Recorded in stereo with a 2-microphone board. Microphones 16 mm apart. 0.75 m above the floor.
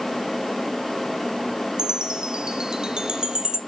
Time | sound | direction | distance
1.8 | a chime | 65° right (ahead or behind) | 0.7 m